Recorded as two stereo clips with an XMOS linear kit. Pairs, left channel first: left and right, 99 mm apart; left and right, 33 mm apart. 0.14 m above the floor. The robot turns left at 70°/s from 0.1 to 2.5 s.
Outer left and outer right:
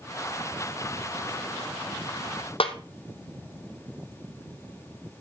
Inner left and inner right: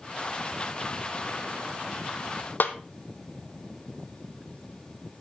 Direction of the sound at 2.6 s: 75° left (ahead or behind).